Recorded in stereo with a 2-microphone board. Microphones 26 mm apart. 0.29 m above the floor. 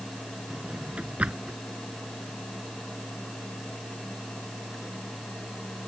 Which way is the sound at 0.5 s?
60° right (ahead or behind).